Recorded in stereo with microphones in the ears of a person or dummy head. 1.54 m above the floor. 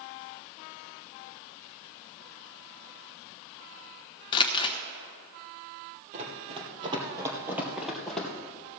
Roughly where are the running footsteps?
Right.